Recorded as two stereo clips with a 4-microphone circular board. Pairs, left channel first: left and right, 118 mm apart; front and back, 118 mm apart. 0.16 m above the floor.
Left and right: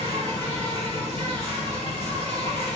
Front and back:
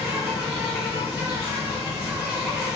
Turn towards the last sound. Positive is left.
turn(degrees=105)